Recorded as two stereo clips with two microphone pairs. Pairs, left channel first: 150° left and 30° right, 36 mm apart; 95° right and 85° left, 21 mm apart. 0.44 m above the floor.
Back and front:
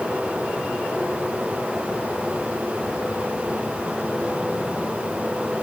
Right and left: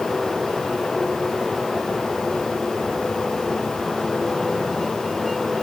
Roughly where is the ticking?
I don't hear ticking.